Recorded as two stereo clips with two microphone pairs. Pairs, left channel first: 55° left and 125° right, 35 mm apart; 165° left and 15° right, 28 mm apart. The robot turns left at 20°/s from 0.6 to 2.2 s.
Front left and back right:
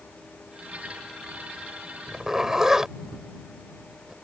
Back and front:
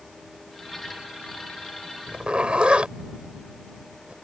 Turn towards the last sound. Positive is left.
turn(degrees=-55)